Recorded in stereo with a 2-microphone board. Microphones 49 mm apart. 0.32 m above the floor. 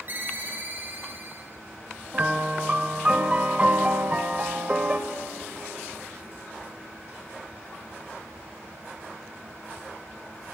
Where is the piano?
25° right (ahead or behind), 1.3 m.